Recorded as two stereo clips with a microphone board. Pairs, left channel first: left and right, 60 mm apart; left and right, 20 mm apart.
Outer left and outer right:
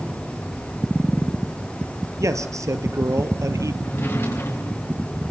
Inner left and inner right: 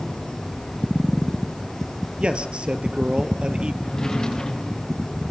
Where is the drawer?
40° left (ahead or behind), 6.5 m.